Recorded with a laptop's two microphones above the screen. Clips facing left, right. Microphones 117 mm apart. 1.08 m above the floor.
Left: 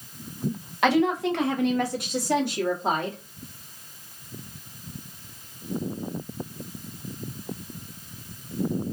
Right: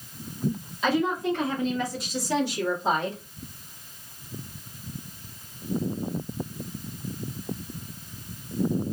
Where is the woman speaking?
75° left (ahead or behind), 0.7 m; by 3.2 s 50° left (ahead or behind), 2 m.